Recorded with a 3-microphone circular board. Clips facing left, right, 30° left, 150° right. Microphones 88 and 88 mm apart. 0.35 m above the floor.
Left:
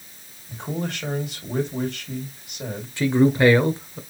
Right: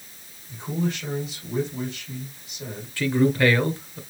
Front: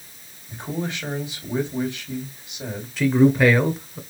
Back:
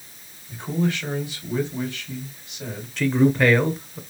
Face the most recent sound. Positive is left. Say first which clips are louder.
# left 3 dB, front 2 dB
turn(degrees=110)